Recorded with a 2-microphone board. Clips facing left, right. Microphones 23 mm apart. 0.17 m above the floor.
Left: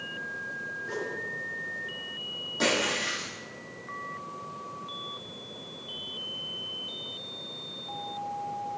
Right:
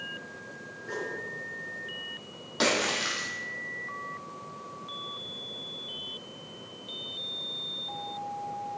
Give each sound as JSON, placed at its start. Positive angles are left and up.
{"t": 0.8, "sound": "a whoosh", "side_deg": 0, "distance_m": 2.5}
{"t": 2.6, "sound": "a splash", "side_deg": -50, "distance_m": 3.5}